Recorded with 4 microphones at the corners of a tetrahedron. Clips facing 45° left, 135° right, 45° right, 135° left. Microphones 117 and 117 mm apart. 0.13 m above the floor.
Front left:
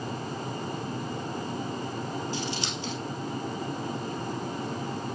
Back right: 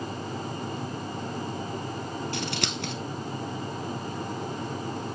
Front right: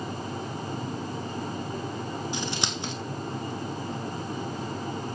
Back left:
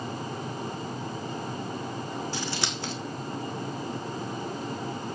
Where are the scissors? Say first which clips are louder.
Back right 1 dB, front right 1 dB; 115° right, 2 m.